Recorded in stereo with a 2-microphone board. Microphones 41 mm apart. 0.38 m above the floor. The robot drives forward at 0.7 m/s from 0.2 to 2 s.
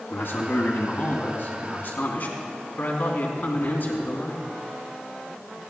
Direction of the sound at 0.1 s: 65° left (ahead or behind).